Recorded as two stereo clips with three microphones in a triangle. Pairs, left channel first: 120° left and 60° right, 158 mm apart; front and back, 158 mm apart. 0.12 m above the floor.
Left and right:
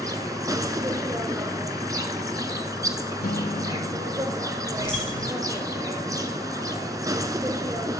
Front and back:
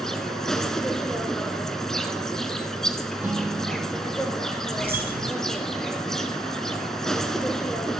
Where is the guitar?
100° left, 0.9 m.